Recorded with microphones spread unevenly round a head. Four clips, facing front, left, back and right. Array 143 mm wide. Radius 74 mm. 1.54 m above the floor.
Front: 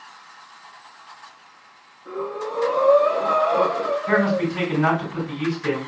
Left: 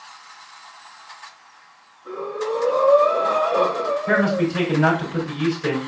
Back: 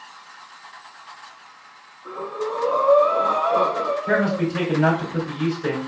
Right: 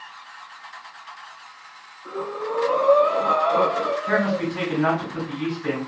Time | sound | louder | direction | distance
2.0 | breathing | left 2 dB, back 1 dB | 160° right | 3 m
4.1 | a man speaking | left 5 dB, front 2 dB | 135° left | 3 m